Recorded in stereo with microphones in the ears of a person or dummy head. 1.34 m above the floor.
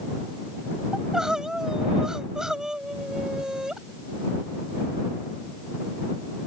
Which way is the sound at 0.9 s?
Centre (ahead or behind).